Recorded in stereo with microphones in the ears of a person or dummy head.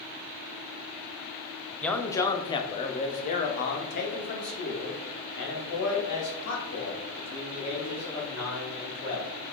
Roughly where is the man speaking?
Centre.